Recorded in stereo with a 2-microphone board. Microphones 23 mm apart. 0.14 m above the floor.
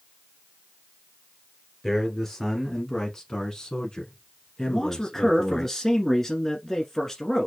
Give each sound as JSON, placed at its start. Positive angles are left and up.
{"t": 1.8, "sound": "a man speaking", "side_deg": 10, "distance_m": 1.9}
{"t": 4.7, "sound": "a man speaking", "side_deg": 20, "distance_m": 1.4}